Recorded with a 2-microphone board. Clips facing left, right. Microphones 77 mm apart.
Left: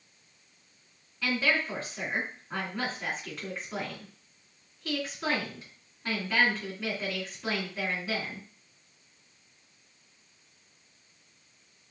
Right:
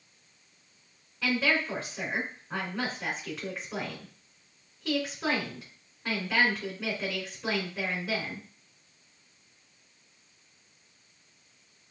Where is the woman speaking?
5° right (ahead or behind), 2.5 m.